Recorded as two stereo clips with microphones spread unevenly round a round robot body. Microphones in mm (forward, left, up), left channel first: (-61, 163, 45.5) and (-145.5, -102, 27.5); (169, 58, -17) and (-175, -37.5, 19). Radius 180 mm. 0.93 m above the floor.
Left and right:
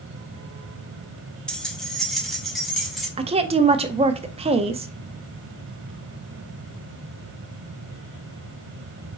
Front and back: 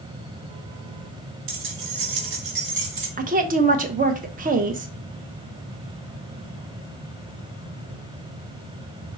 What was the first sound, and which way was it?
Keys jangling, 160° left.